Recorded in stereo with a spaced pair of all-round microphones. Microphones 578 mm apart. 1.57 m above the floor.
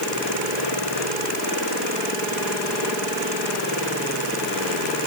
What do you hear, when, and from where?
Only background noise.